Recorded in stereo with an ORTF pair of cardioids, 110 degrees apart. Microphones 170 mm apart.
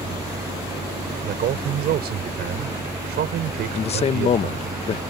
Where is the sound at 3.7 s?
35° left.